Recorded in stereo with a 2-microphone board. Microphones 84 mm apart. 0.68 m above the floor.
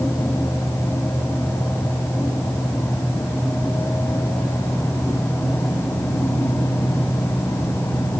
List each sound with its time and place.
Only background noise.